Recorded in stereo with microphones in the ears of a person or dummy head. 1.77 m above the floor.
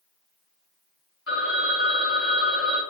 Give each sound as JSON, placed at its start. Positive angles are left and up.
{"t": 1.3, "sound": "a phone ringing", "side_deg": 0, "distance_m": 1.8}